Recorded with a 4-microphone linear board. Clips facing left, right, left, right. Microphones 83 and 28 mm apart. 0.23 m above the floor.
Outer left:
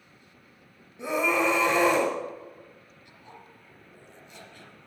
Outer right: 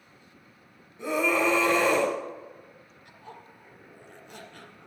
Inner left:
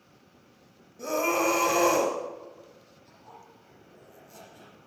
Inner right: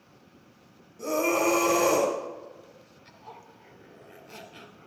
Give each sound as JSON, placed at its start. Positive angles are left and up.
{"t": 1.0, "sound": "a scream", "side_deg": 15, "distance_m": 1.2}
{"t": 3.0, "sound": "a zipper", "side_deg": -45, "distance_m": 2.0}